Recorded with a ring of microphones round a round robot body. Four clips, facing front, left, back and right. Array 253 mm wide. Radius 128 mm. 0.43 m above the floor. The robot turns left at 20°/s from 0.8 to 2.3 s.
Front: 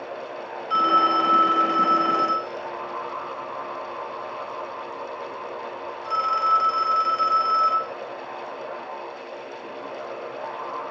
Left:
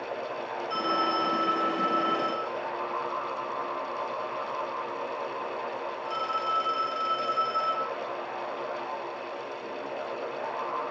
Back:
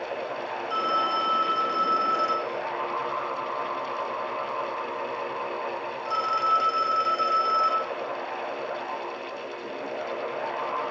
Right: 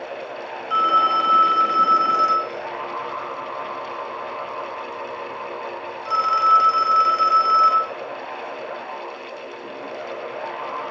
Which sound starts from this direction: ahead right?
A phone ringing, at 0.7 s.